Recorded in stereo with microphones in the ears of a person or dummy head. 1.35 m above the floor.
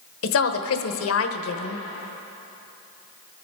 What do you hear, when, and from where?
0.2 s a woman speaking: 75° left (ahead or behind), 1.1 m